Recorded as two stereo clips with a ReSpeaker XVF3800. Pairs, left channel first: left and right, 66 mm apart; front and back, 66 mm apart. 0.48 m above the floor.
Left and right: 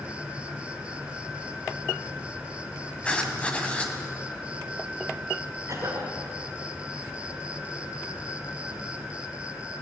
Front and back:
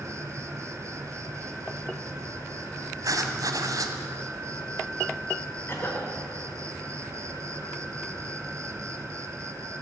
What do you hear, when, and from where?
0.0 s an insect: 160° right, 1.3 m
3.0 s writing: 160° left, 2.5 m
5.7 s a cough: 50° right, 6.5 m